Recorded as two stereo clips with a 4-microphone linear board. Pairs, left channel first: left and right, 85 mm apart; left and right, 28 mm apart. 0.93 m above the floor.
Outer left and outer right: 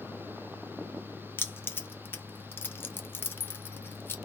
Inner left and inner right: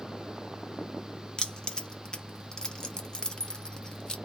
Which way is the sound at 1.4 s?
25° left (ahead or behind).